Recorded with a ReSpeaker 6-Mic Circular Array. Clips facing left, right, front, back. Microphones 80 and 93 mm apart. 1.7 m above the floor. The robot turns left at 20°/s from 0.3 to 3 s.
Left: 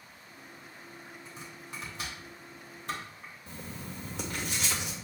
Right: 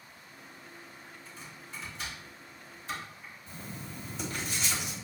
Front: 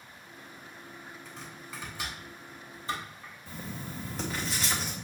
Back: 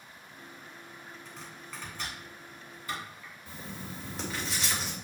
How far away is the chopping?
About 3 m.